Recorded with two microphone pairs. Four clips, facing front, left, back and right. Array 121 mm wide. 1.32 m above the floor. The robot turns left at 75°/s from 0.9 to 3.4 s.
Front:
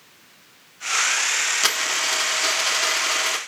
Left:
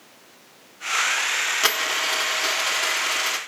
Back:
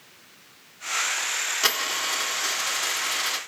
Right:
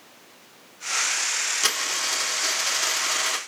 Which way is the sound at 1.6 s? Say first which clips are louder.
Left 5 dB, front 2 dB; 80° left.